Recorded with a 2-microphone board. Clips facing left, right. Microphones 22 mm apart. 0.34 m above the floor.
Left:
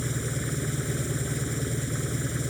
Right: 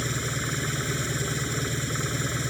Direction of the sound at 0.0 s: 50° right (ahead or behind).